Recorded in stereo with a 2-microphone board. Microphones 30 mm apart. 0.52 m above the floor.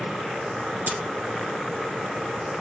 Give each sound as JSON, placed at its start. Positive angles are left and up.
{"t": 0.9, "sound": "a dropped coin", "side_deg": -70, "distance_m": 0.9}